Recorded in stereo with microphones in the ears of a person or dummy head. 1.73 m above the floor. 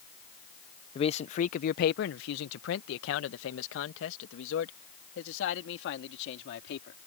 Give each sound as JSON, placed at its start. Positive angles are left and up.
{"t": 0.9, "sound": "a man speaking", "side_deg": 30}